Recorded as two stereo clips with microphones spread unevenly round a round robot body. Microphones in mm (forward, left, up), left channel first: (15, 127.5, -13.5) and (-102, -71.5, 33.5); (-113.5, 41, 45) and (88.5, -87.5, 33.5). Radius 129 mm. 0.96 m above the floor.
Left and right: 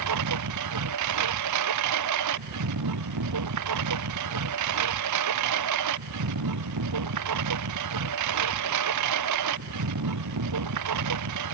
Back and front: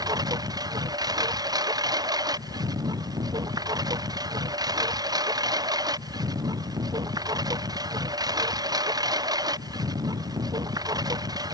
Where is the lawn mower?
110° right.